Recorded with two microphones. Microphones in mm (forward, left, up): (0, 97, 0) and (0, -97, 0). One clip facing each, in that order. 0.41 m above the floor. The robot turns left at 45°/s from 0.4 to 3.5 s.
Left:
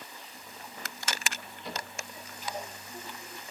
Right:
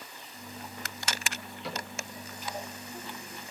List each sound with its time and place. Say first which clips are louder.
1.6 s a cupboard door: right 1 dB; 80° right, 9.5 m; by 1.9 s 70° right (ahead or behind), 9.5 m